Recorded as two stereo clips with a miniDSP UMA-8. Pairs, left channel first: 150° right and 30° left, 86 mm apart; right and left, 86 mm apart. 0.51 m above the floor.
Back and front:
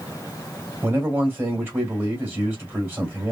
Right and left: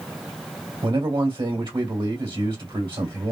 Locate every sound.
0.8 s a man speaking: 90° left, 1.9 m